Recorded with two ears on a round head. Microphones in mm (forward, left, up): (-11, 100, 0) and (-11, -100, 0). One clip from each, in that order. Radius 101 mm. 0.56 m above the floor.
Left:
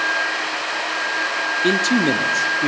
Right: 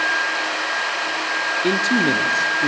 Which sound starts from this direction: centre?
A man speaking, at 1.6 s.